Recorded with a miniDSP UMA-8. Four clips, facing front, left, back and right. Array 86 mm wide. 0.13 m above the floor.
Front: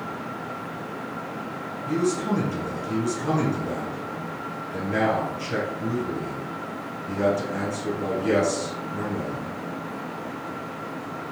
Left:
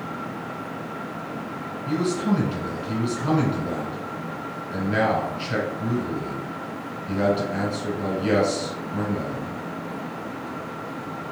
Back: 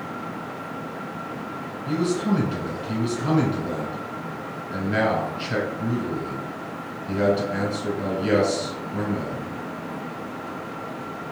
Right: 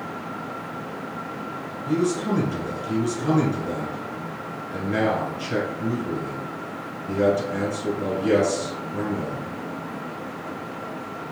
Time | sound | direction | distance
1.9 | a man speaking | 140° left | 1.2 m